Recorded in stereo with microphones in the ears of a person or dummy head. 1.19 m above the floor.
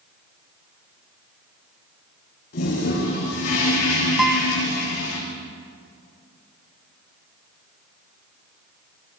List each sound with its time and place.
2.5 s a toilet flushing: 70° left (ahead or behind), 8.5 m
4.2 s a guitar: 5° right (ahead or behind), 1.5 m